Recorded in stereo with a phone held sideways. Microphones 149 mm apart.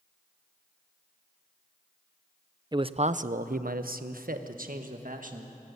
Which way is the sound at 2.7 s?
30° right (ahead or behind).